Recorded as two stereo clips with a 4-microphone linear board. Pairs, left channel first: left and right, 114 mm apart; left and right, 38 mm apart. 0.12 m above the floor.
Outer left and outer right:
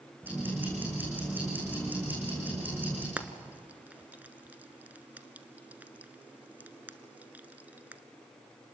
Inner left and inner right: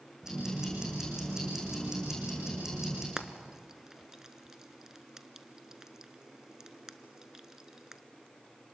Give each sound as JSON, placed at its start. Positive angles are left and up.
{"t": 0.2, "sound": "ticking", "side_deg": -15, "distance_m": 7.5}
{"t": 3.2, "sound": "frying", "side_deg": -15, "distance_m": 0.9}